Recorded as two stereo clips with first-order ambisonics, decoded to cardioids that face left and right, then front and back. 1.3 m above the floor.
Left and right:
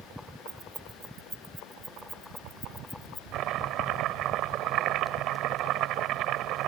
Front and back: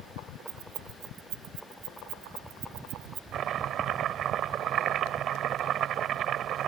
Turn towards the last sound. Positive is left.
turn(degrees=-130)